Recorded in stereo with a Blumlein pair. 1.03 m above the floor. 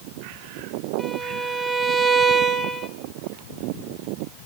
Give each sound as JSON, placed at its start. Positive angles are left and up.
{"t": 1.0, "sound": "a violin", "azimuth_deg": -5, "distance_m": 0.6}